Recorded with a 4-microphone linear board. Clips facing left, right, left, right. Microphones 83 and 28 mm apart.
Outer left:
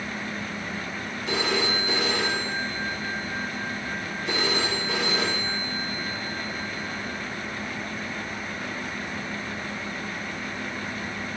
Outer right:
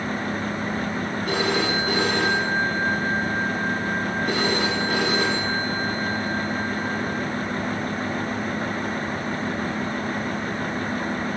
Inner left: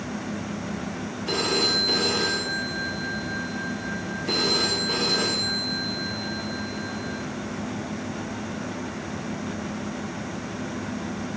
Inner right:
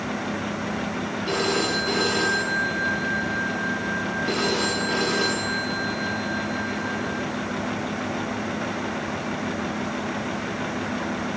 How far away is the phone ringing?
About 9.5 m.